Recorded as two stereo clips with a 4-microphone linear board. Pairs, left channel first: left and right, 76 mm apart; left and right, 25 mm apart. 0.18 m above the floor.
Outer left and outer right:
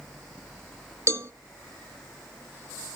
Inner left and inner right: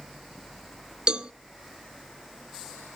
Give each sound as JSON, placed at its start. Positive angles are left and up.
{"t": 1.1, "sound": "a cowbell", "side_deg": -35, "distance_m": 0.8}